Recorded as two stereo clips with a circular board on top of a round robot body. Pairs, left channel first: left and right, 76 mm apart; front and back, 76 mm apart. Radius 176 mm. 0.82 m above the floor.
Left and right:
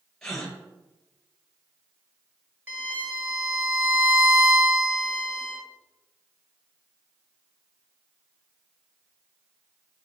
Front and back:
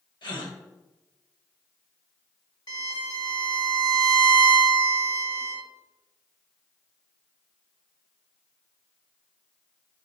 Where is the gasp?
10° left, 1.6 m.